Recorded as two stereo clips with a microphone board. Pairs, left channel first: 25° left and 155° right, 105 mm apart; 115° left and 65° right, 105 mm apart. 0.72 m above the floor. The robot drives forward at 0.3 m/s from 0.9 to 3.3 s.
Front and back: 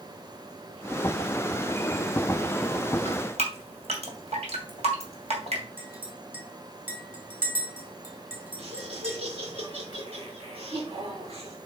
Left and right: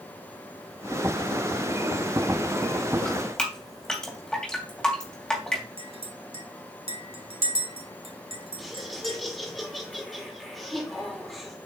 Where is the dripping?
165° right, 2.5 m.